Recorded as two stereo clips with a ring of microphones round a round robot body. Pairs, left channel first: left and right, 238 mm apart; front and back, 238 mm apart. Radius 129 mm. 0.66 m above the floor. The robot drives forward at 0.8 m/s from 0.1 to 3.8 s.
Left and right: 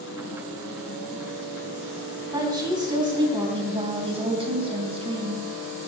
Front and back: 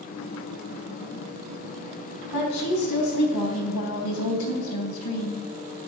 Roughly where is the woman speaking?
Ahead.